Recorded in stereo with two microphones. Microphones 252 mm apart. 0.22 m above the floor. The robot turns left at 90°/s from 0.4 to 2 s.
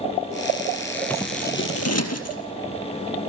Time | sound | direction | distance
1.1 | scissors | 175° left | 2.5 m